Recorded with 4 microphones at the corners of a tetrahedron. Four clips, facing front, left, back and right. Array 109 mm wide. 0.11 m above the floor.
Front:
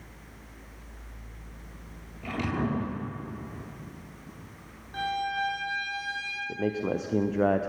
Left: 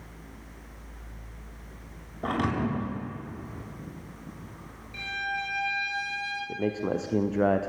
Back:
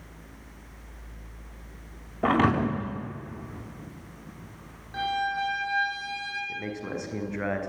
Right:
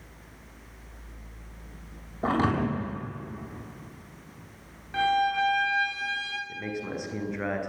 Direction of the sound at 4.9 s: 100° right.